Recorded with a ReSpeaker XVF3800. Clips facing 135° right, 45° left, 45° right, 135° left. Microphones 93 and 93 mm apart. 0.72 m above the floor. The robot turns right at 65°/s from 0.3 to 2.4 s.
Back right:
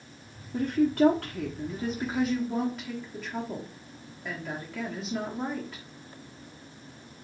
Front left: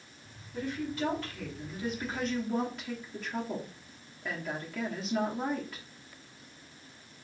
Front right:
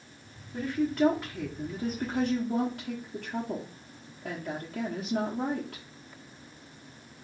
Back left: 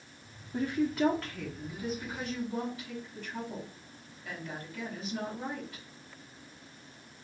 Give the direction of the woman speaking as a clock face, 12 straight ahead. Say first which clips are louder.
Back right 11 dB, front right 2 dB; 5 o'clock.